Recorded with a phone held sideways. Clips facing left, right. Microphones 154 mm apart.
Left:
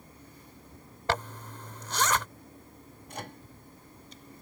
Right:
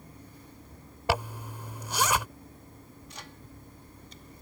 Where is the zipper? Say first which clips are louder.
Right 2 dB; 10° right (ahead or behind).